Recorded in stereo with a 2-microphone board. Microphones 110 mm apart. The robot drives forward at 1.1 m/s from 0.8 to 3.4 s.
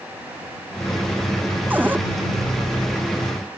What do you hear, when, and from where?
1.7 s a cupboard door: 15° right (ahead or behind)